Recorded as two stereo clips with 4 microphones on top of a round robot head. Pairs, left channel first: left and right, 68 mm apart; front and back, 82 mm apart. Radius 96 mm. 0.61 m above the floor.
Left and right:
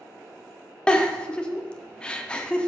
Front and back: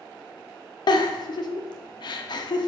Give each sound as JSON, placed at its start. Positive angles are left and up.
{"t": 0.9, "sound": "a giggle", "azimuth_deg": 15, "distance_m": 0.8}